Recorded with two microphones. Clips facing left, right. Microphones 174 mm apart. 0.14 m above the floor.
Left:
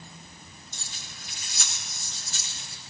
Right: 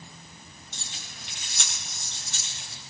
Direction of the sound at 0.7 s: 70° right (ahead or behind).